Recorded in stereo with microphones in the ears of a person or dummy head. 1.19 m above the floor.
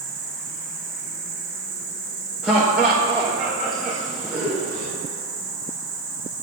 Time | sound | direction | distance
0.0 | an insect | centre (ahead or behind) | 3 m
2.4 | laughter | centre (ahead or behind) | 1.2 m